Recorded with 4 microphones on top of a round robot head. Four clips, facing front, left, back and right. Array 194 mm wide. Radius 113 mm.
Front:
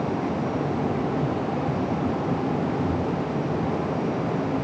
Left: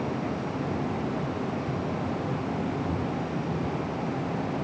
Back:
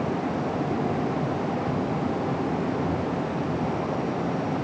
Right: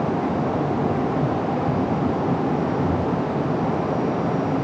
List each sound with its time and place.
Only background noise.